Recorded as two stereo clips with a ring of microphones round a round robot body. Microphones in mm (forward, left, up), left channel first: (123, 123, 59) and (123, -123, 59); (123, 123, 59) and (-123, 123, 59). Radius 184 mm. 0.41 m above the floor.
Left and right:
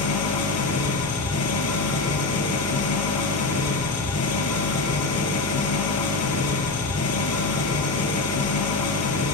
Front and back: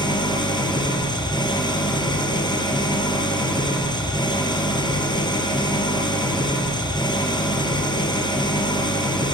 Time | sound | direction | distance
0.0 | an engine running | 75° left | 4 m